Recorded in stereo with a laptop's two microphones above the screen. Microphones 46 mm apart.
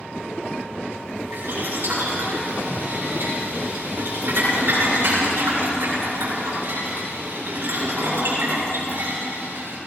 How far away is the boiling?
About 5.5 m.